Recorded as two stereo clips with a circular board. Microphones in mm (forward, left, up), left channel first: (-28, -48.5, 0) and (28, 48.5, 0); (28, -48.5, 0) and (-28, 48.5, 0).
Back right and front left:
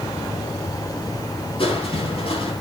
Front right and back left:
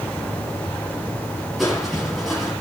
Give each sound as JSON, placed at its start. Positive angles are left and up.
{"t": 1.6, "sound": "crushing", "azimuth_deg": -150, "distance_m": 9.0}